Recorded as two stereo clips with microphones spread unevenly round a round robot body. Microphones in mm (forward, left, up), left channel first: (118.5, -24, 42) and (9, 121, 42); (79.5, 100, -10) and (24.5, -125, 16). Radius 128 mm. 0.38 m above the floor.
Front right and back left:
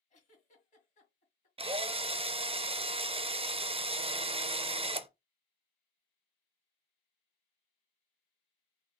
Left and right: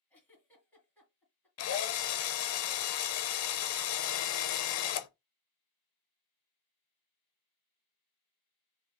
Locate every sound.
0.1 s a giggle: 5° right, 2.0 m
1.6 s a drill: 65° left, 0.5 m